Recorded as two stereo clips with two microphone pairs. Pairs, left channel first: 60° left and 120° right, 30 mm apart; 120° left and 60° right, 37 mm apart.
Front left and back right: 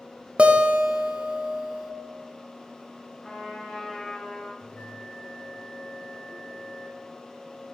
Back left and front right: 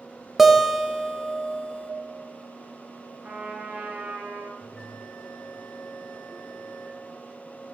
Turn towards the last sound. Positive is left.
turn(degrees=50)